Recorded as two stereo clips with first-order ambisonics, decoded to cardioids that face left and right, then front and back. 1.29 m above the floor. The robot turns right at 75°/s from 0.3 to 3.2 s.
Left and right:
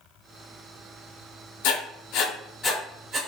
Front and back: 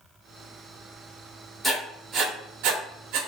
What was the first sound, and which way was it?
Writing, 90° left.